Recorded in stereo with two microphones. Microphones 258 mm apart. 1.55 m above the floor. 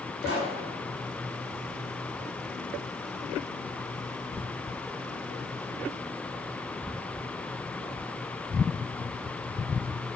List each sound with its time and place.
0.2 s a pop: 55° left (ahead or behind), 3.5 m